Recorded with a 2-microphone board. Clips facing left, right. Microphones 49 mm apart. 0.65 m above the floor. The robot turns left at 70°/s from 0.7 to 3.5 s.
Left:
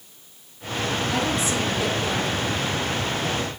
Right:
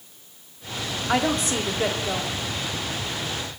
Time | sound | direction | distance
1.1 | a woman speaking | 75° right | 1.7 m